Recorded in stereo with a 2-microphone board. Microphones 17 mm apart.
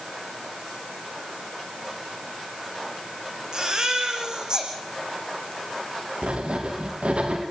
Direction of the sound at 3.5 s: 50° right (ahead or behind).